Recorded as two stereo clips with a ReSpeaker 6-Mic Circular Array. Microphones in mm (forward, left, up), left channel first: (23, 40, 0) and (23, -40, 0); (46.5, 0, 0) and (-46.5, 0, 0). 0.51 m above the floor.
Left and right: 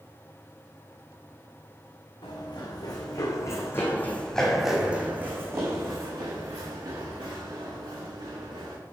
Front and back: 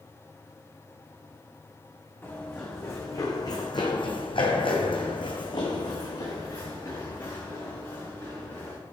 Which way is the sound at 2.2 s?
65° left.